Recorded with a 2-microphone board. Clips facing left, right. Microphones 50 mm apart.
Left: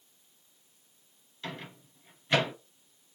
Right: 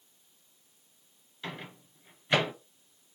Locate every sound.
1.4 s a microwave: 10° right (ahead or behind), 1.2 m